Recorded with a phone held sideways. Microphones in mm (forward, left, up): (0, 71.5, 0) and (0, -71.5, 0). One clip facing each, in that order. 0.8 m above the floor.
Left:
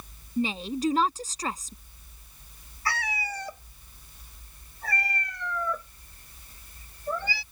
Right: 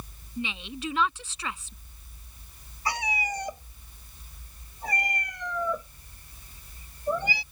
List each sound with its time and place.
0.4 s a woman speaking: 40° left (ahead or behind)
2.9 s a cat meowing: 20° right (ahead or behind)